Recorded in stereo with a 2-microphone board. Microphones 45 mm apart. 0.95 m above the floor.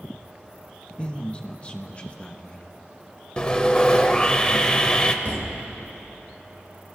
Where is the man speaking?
25° left (ahead or behind), 0.9 m.